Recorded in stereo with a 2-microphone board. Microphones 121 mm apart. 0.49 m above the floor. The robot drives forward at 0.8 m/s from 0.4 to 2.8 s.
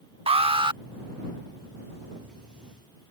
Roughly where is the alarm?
Right.